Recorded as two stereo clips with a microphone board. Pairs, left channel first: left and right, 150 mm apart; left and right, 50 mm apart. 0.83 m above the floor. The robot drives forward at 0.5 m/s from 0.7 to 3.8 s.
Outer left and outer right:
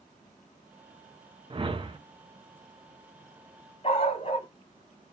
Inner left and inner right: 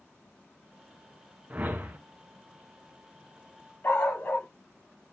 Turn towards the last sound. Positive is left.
turn(degrees=40)  # may be behind; listen again after turning